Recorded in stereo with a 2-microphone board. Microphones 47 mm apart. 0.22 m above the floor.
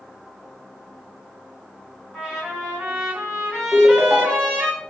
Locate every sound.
2.1 s a trumpet: 10° right (ahead or behind), 1.7 m
3.7 s a ringtone: centre (ahead or behind), 0.7 m